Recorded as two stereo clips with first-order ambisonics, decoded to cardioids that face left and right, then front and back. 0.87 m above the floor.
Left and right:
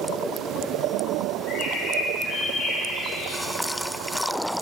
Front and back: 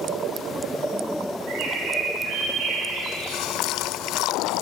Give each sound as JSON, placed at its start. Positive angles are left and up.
{"t": 1.5, "sound": "a bird", "azimuth_deg": 150, "distance_m": 1.8}